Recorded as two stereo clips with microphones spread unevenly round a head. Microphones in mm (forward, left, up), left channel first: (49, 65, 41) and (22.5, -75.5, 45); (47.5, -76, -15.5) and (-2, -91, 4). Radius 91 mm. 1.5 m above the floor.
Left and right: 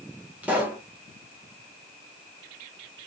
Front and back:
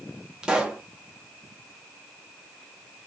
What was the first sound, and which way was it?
A pop, 175° right.